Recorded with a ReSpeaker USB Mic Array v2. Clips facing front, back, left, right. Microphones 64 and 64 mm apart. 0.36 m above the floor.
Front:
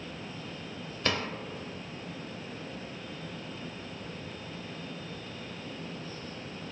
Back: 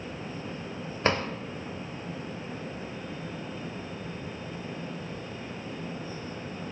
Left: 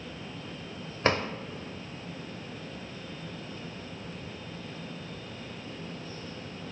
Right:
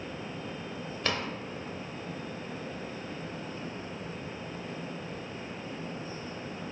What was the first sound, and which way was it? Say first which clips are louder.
A drawer: back 5 dB, left 6 dB; 135° left.